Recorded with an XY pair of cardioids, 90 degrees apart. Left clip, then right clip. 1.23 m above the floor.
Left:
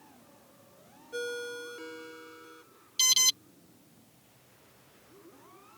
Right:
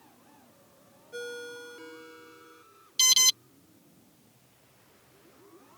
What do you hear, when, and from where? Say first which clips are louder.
1.1 s a ringtone: left 3 dB; 15° left
3.0 s an alarm: right 3 dB; 30° right